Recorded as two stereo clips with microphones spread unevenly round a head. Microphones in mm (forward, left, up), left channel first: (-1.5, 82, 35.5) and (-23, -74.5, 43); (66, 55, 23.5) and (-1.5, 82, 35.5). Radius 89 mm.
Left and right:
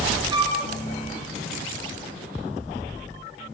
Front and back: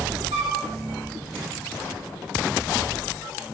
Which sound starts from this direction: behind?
A flute, at 0.3 s.